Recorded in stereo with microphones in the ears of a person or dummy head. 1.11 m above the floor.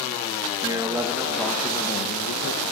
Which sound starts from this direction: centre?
A man speaking, at 0.6 s.